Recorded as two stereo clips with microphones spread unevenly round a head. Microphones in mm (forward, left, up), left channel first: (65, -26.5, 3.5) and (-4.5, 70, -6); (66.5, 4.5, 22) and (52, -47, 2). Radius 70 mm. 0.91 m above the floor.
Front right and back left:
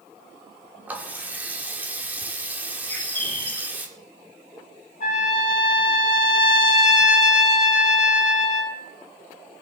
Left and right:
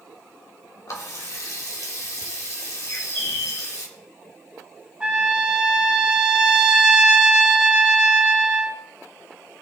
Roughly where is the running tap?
Ahead left.